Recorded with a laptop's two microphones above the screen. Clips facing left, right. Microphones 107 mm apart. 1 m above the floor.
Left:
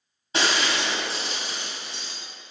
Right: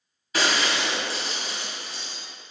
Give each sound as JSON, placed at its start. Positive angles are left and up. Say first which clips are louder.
{"t": 0.3, "sound": "breaking glass", "louder": "even", "side_deg": 25, "distance_m": 2.0}